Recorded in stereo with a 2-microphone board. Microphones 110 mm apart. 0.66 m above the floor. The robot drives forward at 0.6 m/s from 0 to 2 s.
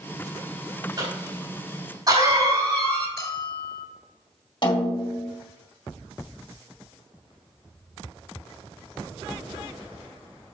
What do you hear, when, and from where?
1.0 s a cough: 40° right (ahead or behind), 4 m; by 3.1 s 35° right (ahead or behind), 4.5 m
3.2 s a bell: 35° left (ahead or behind), 2.5 m
4.6 s a snare drum: 50° left (ahead or behind), 1.8 m